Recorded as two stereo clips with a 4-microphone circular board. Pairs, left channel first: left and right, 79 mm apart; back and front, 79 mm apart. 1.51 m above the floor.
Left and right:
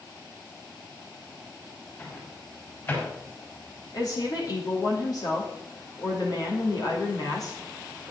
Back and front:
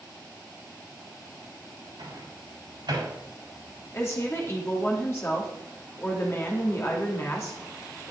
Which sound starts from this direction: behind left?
A woman speaking, at 3.9 s.